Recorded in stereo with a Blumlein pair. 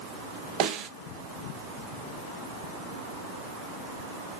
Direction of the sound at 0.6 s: 40° right.